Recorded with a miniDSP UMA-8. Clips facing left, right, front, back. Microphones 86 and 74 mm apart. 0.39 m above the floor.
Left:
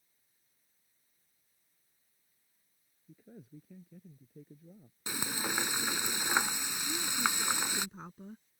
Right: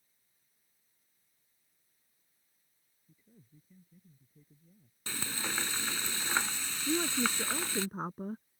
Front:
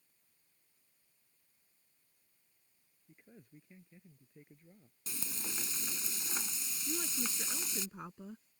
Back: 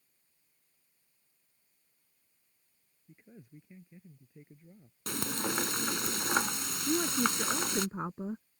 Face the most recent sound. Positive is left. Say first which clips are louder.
# right 4 dB, back 11 dB
turn(degrees=-130)